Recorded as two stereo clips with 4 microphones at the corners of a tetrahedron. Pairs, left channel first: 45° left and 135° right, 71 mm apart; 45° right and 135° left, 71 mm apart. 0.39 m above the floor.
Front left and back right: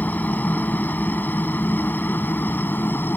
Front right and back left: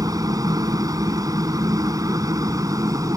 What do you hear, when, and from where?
0.0 s a helicopter: 110° left; by 3.2 s 105° left